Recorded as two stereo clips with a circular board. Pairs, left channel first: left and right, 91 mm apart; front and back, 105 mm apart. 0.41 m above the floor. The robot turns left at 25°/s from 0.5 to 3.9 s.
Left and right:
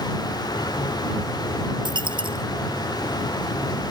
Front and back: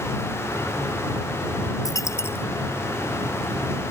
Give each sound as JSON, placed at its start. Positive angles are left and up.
{"t": 1.9, "sound": "a dropped coin", "azimuth_deg": -55}